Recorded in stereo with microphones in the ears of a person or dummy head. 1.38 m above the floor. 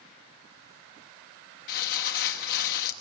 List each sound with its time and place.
1.7 s crumpling: 55° left (ahead or behind), 1.2 m